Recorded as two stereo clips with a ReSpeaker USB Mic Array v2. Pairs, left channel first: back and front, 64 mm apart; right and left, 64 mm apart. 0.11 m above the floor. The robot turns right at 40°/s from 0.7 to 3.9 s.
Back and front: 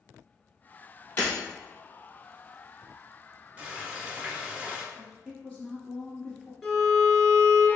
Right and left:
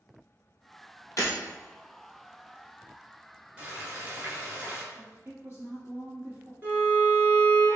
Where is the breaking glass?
125° right, 2 m; by 1.3 s 120° right, 2 m.